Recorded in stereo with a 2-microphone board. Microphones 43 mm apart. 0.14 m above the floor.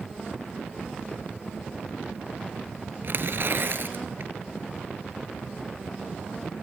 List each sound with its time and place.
3.0 s tearing paper: 55° right (ahead or behind), 2 m